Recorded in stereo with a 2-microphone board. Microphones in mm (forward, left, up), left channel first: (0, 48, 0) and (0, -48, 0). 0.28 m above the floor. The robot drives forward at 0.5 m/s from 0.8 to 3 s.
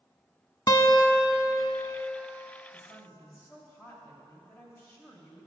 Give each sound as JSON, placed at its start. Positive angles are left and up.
{"t": 0.7, "sound": "a guitar", "side_deg": 40, "distance_m": 0.5}
{"t": 2.7, "sound": "a woman speaking", "side_deg": 25, "distance_m": 1.3}